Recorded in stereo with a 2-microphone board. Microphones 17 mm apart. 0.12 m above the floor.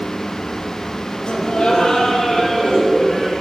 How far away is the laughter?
About 2.5 m.